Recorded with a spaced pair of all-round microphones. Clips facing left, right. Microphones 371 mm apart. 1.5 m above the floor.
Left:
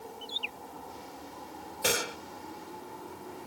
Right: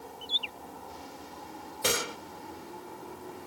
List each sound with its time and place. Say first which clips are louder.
0.2 s a bird: left 1 dB; 30° right (ahead or behind)
1.8 s a gunshot: even; 5° right (ahead or behind)